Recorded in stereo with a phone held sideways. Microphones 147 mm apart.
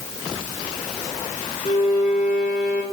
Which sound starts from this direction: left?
A violin, at 1.6 s.